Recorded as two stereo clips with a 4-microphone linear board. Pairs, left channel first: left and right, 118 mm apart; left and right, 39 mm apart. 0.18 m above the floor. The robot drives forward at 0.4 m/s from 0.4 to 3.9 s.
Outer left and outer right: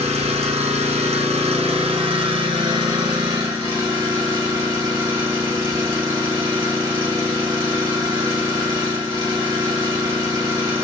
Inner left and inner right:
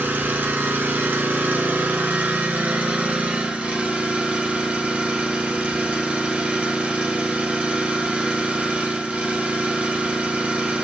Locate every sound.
0.0 s an engine running: 60° right (ahead or behind), 0.9 m; by 10.8 s 30° right (ahead or behind), 1.5 m